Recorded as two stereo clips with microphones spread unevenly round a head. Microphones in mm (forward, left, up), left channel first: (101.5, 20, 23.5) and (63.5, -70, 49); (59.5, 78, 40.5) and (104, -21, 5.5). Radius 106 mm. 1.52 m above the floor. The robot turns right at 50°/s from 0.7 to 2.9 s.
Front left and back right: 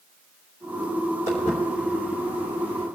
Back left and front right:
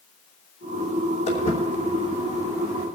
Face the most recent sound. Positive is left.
turn(degrees=-150)